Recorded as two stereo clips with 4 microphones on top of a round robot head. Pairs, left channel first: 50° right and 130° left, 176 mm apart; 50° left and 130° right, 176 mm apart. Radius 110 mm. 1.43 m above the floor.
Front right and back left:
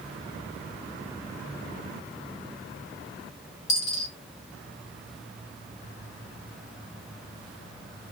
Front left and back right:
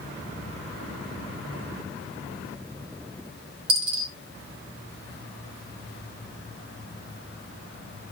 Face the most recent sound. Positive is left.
turn(degrees=-100)